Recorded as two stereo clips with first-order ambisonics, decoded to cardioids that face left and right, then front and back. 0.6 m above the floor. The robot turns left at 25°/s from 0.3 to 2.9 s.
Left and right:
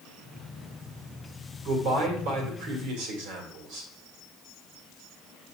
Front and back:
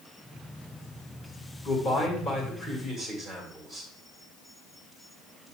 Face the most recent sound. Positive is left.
turn(degrees=-80)